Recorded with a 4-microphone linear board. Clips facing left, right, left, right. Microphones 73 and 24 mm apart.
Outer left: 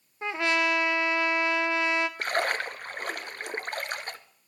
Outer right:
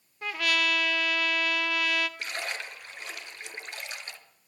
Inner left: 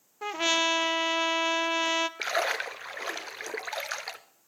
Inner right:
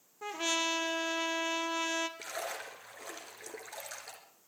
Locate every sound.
0.2 s a trumpet: 25° left (ahead or behind), 0.7 m
2.2 s a splash: 50° left (ahead or behind), 0.6 m